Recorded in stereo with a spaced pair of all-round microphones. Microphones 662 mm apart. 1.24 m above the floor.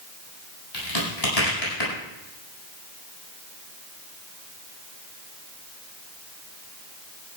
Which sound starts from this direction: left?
A crack, at 0.7 s.